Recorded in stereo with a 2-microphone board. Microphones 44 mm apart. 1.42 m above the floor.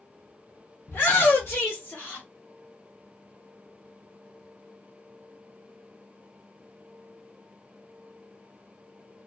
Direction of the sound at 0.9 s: 60° left (ahead or behind).